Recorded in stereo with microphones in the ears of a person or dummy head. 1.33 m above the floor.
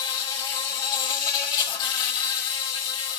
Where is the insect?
30° left (ahead or behind), 1.2 m.